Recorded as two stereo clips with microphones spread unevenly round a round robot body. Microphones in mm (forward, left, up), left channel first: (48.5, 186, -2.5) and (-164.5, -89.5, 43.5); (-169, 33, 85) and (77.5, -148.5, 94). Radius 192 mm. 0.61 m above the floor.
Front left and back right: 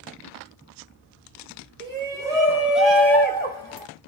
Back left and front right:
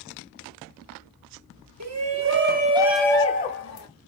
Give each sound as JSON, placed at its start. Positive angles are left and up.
{"t": 1.8, "sound": "a shout", "azimuth_deg": -45, "distance_m": 1.2}